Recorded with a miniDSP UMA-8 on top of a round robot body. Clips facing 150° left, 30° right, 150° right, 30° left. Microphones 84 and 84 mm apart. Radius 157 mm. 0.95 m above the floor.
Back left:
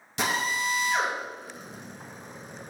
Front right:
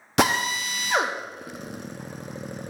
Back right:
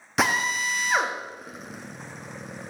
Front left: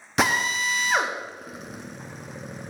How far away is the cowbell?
No cowbell in this recording.